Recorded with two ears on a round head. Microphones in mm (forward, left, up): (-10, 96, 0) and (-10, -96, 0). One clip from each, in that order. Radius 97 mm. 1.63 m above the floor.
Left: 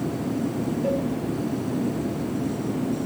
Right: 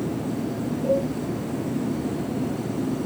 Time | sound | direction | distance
0.8 | a cowbell | 35° left (ahead or behind) | 4 m